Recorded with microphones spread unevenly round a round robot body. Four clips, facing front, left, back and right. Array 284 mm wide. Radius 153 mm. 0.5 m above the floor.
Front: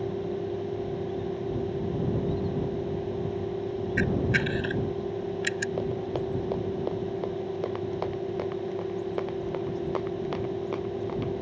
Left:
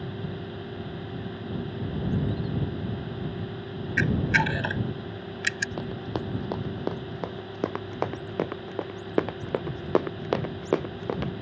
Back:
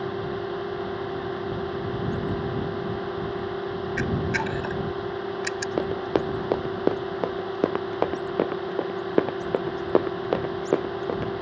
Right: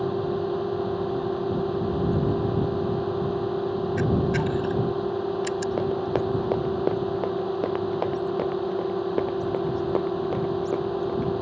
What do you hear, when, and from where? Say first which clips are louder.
0.0 s a drone: right 11 dB, back 1 dB; 95° right
4.0 s a camera shutter: left 1 dB, front 1 dB; 100° left
5.8 s running footsteps: right 8 dB, back 5 dB; 175° right; by 11.3 s 135° left